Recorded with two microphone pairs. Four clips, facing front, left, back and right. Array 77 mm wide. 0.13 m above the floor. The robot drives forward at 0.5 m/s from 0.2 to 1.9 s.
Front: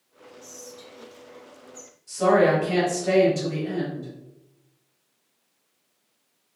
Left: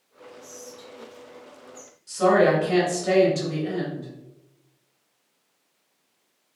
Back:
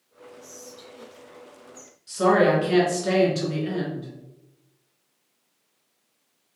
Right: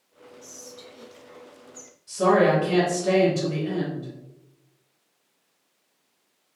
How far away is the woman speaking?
About 1.9 m.